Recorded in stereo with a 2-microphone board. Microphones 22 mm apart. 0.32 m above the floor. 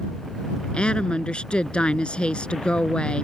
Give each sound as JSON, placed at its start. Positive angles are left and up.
{"t": 0.7, "sound": "a woman speaking", "side_deg": 55}